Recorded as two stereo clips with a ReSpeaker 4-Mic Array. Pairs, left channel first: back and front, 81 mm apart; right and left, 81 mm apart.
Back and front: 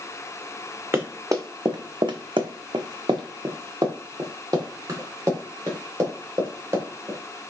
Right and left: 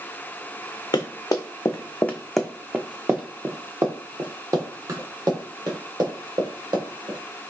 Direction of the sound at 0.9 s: 60° right.